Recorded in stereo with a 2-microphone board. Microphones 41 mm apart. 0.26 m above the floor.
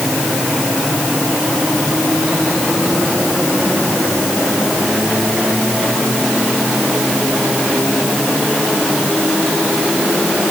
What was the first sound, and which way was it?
Only background noise.